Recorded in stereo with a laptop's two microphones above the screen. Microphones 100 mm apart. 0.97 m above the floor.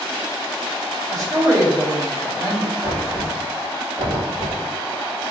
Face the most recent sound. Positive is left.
turn(degrees=-70)  # may be behind; listen again after turning